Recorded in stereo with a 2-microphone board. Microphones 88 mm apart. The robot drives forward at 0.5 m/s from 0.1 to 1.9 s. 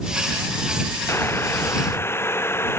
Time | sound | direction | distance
1.1 | boiling | 30° left (ahead or behind) | ?